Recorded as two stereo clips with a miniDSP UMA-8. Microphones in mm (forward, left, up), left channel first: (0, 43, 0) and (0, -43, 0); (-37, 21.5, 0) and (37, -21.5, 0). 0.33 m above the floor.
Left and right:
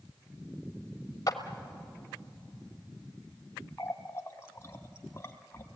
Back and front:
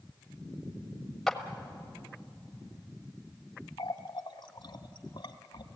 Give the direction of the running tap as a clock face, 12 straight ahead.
7 o'clock.